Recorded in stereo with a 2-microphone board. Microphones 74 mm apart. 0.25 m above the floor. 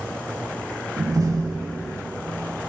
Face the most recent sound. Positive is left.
turn(degrees=-55)  # may be behind; listen again after turning